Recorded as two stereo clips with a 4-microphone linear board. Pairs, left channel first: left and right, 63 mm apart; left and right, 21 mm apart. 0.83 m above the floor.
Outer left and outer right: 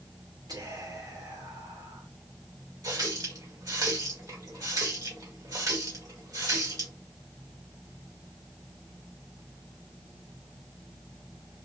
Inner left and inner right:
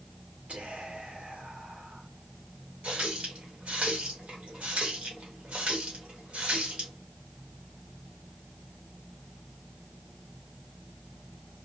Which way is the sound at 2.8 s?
60° right (ahead or behind).